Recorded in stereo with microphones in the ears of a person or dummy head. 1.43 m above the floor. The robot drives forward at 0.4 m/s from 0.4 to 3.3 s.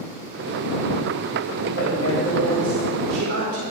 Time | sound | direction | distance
1.7 | a woman speaking | 60° right (ahead or behind) | 5 m